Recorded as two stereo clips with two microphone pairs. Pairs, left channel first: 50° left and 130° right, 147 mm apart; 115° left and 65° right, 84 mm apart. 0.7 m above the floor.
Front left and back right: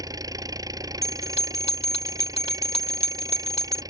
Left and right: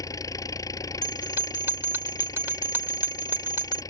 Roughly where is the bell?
Ahead.